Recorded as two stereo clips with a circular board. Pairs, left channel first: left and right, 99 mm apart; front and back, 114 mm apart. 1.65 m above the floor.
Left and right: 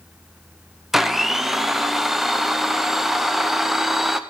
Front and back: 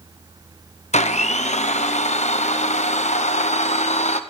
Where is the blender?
5° right, 0.8 m.